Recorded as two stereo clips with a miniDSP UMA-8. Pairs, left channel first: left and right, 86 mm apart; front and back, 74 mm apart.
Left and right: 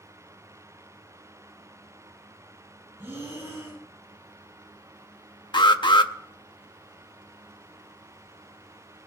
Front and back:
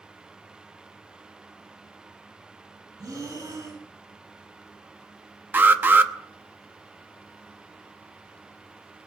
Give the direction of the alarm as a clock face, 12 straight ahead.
8 o'clock.